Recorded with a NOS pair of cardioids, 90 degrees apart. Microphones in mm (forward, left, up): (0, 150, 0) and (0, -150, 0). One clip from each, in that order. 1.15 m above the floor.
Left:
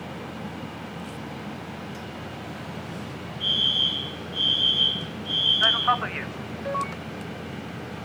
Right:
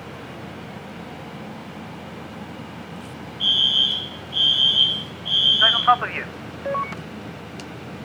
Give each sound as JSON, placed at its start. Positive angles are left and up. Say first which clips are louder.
{"t": 3.4, "sound": "a fire alarm", "louder": "right 4 dB", "azimuth_deg": -70, "distance_m": 3.5}
{"t": 5.6, "sound": "a man speaking", "louder": "right 5 dB", "azimuth_deg": -20, "distance_m": 0.6}